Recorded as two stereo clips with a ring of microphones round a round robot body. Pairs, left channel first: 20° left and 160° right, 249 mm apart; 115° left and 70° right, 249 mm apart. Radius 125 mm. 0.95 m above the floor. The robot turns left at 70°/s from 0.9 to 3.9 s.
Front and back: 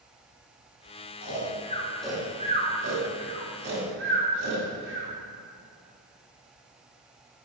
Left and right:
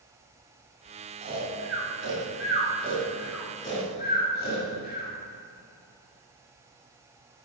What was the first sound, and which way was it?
Snoring, 5° right.